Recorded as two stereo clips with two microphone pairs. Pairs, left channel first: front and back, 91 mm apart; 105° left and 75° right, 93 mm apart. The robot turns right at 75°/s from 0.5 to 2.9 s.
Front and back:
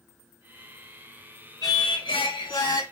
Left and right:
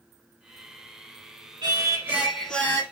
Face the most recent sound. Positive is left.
turn(degrees=50)